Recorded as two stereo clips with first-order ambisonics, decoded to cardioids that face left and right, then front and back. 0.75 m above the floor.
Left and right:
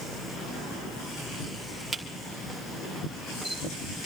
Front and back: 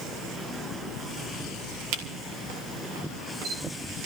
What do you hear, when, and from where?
1.9 s a camera shutter: 175° left, 2 m